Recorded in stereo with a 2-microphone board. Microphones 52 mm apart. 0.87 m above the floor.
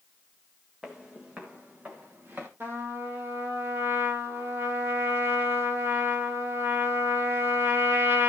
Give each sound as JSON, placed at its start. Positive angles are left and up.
{"t": 0.8, "sound": "footsteps", "side_deg": -10, "distance_m": 2.5}
{"t": 2.6, "sound": "a trumpet", "side_deg": -45, "distance_m": 3.5}